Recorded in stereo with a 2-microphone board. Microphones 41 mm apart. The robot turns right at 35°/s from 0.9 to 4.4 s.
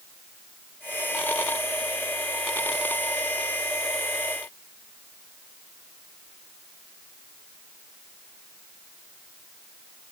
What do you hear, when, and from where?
Only background noise.